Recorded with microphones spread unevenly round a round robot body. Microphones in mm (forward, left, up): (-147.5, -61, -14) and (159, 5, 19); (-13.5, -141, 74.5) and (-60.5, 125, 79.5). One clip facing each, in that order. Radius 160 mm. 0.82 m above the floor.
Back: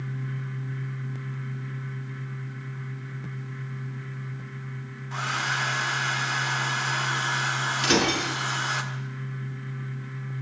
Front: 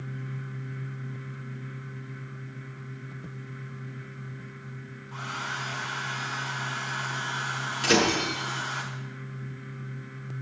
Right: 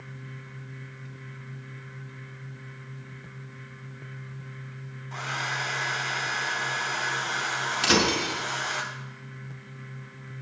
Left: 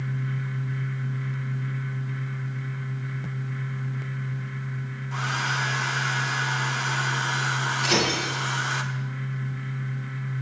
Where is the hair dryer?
175° left, 1.4 m.